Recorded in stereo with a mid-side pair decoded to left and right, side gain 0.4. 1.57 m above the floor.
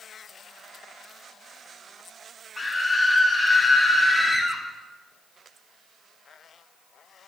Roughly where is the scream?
Ahead left.